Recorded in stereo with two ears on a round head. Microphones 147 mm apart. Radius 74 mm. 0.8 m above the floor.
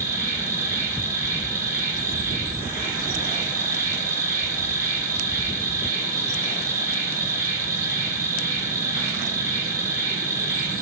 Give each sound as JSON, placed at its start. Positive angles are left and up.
{"t": 0.0, "sound": "an insect", "side_deg": -15, "distance_m": 2.0}